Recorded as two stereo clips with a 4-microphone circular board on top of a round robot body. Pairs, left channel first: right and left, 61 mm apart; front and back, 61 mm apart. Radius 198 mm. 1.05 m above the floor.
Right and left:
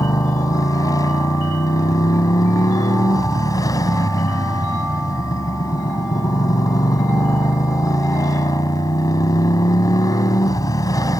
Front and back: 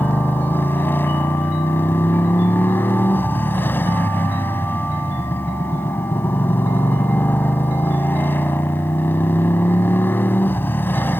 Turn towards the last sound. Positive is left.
turn(degrees=-60)